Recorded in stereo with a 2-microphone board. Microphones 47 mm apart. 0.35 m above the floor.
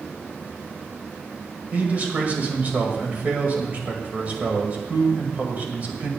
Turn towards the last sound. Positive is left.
turn(degrees=-35)  # may be behind; listen again after turning